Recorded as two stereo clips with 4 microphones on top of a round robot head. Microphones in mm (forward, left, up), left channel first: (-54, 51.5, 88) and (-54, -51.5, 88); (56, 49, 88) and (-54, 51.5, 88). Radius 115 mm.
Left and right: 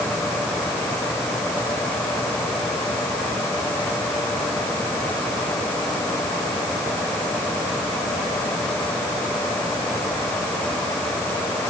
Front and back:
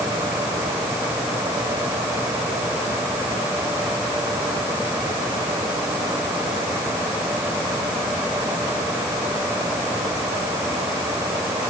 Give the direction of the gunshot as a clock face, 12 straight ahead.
No gunshot in this recording.